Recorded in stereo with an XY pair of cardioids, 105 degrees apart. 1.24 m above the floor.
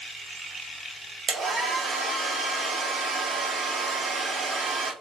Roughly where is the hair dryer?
Ahead right.